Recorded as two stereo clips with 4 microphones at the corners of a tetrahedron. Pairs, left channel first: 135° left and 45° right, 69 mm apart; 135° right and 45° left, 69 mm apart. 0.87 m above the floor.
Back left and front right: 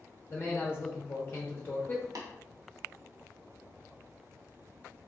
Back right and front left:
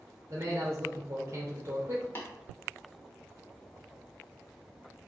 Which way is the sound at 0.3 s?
85° left.